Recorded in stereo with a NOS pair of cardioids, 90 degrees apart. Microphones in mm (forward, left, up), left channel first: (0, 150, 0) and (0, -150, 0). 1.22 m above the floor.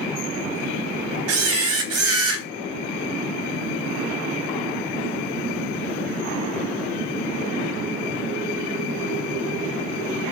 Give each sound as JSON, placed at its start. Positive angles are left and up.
{"t": 1.3, "sound": "a camera shutter", "azimuth_deg": -50, "distance_m": 0.6}